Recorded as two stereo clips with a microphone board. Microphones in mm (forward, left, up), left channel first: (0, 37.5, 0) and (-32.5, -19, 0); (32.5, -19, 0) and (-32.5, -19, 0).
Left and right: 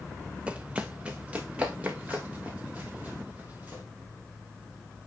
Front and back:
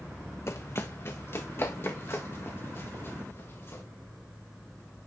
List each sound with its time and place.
0.5 s running footsteps: 50° right, 0.6 m